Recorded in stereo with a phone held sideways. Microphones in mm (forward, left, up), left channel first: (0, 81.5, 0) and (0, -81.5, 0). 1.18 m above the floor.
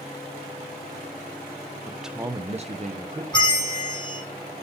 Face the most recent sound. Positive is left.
turn(degrees=25)  # may be behind; listen again after turning